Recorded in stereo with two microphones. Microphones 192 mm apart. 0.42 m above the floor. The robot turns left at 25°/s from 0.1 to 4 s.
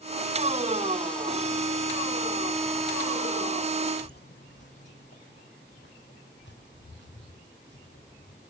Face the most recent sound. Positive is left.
turn(degrees=70)  # may be behind; listen again after turning